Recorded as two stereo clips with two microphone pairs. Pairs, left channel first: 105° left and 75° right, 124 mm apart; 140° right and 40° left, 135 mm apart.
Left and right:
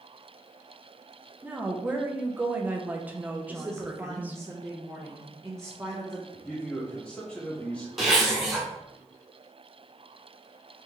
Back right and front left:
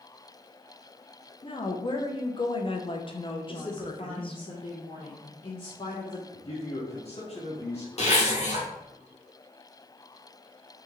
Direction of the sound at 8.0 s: 160° right.